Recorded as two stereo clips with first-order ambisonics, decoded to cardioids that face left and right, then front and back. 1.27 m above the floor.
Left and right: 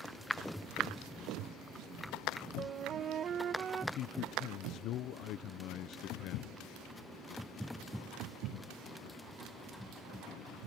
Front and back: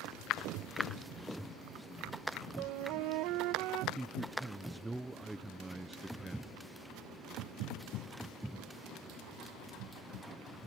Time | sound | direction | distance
2.6 | a flute | 150° right | ?
4.0 | a man speaking | 95° left | ?